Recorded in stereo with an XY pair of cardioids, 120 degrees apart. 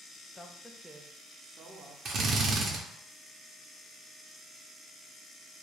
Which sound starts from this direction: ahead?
A woman speaking, at 0.3 s.